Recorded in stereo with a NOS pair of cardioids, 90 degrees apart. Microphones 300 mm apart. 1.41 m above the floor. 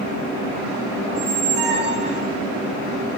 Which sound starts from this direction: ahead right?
A squeak, at 1.1 s.